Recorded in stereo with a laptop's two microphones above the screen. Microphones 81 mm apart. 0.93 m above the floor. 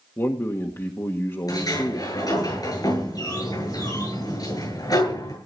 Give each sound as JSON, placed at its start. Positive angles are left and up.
{"t": 0.2, "sound": "a man speaking", "side_deg": 35, "distance_m": 1.5}
{"t": 1.5, "sound": "a sliding door", "side_deg": 50, "distance_m": 9.0}